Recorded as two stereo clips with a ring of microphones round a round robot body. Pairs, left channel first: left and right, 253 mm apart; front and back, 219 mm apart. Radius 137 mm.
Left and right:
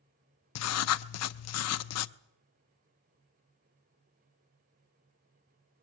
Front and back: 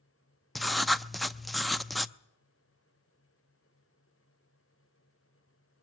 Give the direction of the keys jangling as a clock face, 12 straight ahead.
I don't hear keys jangling.